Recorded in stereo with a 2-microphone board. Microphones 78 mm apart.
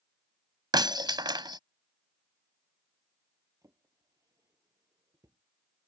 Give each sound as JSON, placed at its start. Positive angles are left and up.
{"t": 0.7, "sound": "breaking glass", "side_deg": -70}
{"t": 3.6, "sound": "a drawer", "side_deg": -45}